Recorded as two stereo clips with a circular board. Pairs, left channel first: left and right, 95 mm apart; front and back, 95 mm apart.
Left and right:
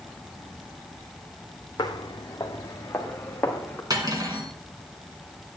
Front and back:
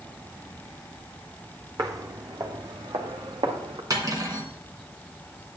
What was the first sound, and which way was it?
Footsteps, 125° left.